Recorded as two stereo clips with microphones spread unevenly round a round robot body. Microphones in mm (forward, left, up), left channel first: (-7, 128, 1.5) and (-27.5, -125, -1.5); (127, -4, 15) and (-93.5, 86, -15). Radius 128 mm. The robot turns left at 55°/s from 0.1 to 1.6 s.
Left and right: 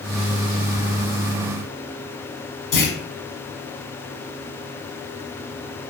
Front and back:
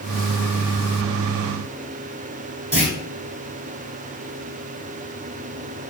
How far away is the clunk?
About 1.9 m.